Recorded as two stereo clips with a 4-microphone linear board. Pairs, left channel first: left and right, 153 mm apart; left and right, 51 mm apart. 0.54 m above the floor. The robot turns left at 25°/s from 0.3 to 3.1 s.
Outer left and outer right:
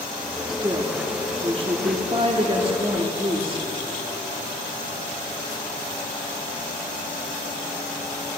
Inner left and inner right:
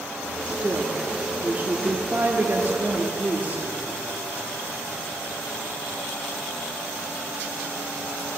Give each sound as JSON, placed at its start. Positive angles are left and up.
{"t": 0.5, "sound": "a woman speaking", "azimuth_deg": -45, "distance_m": 0.8}